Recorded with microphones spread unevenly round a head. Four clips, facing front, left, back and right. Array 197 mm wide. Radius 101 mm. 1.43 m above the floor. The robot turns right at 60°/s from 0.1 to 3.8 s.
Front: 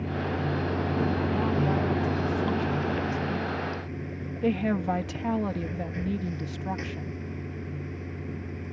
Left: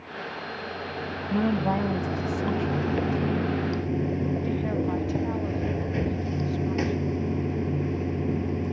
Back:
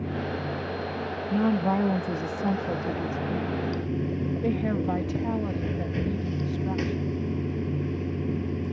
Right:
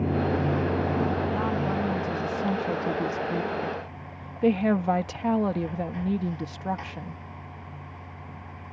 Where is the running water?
90° right; by 8.7 s 130° left.